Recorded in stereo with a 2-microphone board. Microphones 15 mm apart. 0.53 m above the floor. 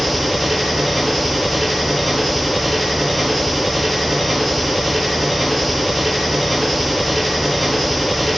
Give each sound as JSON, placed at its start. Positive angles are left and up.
{"t": 0.0, "sound": "an engine running", "side_deg": 5, "distance_m": 2.5}